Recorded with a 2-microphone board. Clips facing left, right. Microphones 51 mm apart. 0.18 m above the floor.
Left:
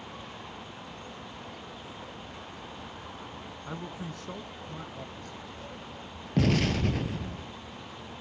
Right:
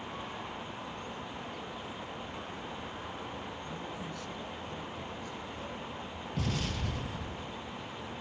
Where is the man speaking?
40° left (ahead or behind), 1.3 m; by 5.7 s 55° left (ahead or behind), 3 m.